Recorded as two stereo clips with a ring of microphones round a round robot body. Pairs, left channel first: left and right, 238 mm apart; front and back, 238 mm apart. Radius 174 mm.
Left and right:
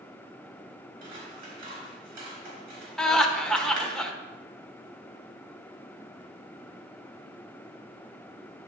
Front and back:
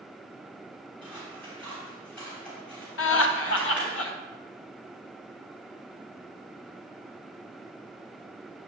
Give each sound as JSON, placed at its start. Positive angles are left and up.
{"t": 1.0, "sound": "scissors", "azimuth_deg": -90, "distance_m": 3.5}
{"t": 3.0, "sound": "laughter", "azimuth_deg": 5, "distance_m": 1.2}